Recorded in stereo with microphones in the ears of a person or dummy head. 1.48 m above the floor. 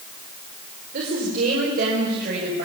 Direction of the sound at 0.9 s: 45° right (ahead or behind).